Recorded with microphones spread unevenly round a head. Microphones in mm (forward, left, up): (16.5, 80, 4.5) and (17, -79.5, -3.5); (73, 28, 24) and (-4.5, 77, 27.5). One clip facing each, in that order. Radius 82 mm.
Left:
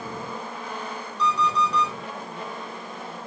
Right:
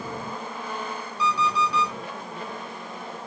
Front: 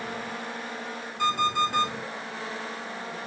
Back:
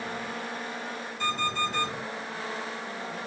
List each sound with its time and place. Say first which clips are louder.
1.2 s an alarm clock: left 1 dB, front 5 dB; 10° right, 5 m